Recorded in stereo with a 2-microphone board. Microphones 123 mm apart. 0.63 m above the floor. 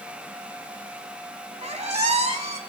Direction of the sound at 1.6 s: 65° right (ahead or behind).